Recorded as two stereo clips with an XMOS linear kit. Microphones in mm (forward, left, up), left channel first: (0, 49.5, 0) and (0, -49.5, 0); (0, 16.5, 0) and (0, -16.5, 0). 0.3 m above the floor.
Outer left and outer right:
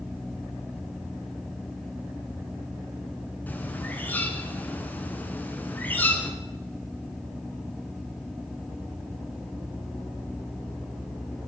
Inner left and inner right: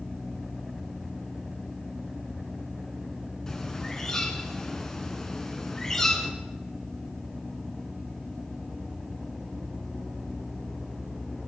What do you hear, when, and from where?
3.5 s a bird: 15° left (ahead or behind), 3 m